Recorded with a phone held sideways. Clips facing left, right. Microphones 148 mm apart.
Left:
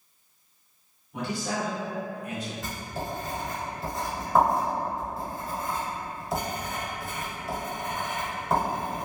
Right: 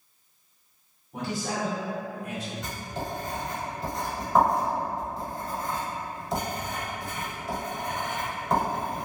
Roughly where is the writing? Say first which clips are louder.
Even; centre.